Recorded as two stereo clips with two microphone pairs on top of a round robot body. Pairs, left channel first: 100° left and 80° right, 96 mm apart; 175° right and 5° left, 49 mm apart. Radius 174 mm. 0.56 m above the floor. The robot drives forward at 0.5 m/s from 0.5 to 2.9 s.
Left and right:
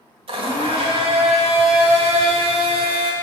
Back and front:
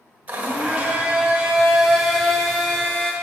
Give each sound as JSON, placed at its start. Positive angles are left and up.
{"t": 0.3, "sound": "a blender", "azimuth_deg": -55, "distance_m": 1.7}